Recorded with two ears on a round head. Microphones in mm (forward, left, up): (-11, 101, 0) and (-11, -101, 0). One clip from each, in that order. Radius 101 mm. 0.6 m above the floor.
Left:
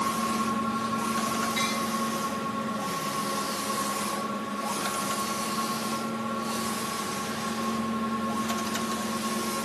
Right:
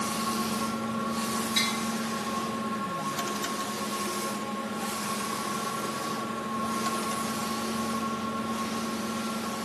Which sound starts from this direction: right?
Tapping, at 1.6 s.